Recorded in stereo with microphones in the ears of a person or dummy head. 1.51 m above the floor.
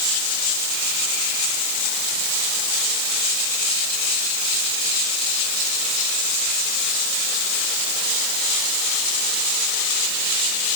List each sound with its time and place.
Only background noise.